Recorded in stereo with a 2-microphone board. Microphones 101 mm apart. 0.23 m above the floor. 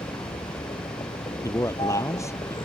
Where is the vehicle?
50° left (ahead or behind).